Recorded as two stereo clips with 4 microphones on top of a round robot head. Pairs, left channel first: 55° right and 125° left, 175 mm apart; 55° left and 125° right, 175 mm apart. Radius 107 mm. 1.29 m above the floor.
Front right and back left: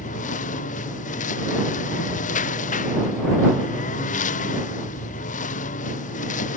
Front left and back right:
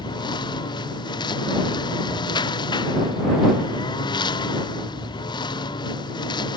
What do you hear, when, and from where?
0.0 s a lawn mower: 10° right